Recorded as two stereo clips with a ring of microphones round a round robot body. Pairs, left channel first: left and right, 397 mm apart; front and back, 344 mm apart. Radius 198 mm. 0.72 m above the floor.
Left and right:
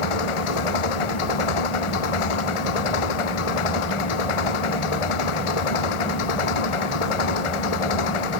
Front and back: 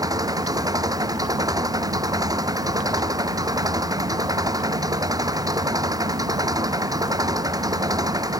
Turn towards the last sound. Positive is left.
turn(degrees=100)